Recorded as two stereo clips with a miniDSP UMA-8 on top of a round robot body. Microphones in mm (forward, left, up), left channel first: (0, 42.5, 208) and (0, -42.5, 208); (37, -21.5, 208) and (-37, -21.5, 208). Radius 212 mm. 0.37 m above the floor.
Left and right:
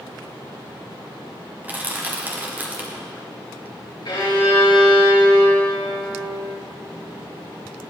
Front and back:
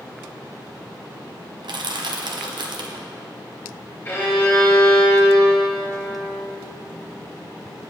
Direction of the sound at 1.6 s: 160° right.